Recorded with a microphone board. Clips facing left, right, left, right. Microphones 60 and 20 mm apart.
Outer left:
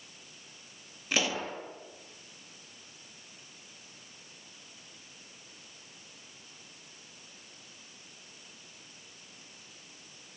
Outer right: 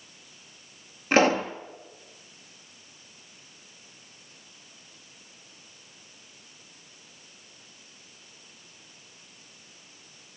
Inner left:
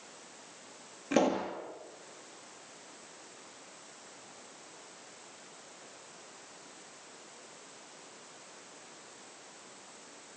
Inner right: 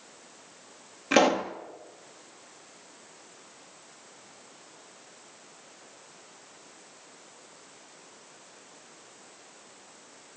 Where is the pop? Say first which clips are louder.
Outer right 11 dB, inner right 6 dB; 40° right (ahead or behind), 1.7 m.